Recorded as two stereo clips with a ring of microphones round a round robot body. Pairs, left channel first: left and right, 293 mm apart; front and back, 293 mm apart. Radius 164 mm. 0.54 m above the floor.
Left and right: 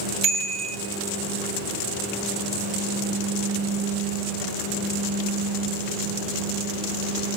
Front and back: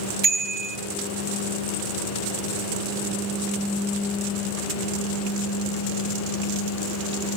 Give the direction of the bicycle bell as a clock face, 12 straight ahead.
4 o'clock.